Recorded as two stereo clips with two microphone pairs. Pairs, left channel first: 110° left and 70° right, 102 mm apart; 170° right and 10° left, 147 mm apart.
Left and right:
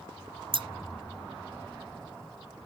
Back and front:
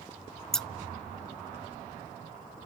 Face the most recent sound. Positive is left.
turn(degrees=-80)